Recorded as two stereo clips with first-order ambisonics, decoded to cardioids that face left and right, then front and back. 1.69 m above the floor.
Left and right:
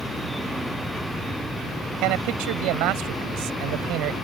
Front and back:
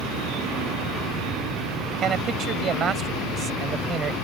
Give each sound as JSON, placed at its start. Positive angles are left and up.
{"t": 2.0, "sound": "a man speaking", "azimuth_deg": -120}